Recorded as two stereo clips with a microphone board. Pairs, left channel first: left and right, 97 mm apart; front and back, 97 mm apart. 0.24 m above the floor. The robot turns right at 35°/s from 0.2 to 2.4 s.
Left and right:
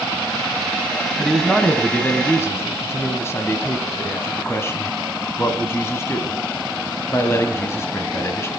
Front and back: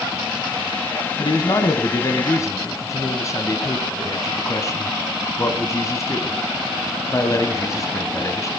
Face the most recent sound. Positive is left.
turn(degrees=40)